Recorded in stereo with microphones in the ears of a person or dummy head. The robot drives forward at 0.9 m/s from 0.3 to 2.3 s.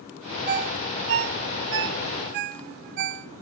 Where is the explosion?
No explosion in this recording.